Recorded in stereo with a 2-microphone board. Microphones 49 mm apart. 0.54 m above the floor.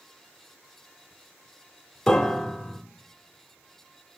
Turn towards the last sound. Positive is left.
turn(degrees=5)  # may be behind; listen again after turning